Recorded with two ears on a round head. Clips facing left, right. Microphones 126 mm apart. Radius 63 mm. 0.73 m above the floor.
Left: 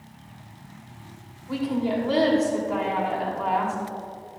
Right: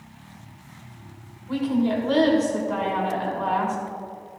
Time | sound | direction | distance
1.5 | a woman speaking | 10° left (ahead or behind) | 2.5 m